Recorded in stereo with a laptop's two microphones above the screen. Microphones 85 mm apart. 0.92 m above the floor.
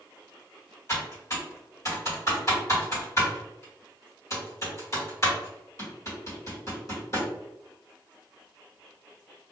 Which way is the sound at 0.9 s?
40° left (ahead or behind).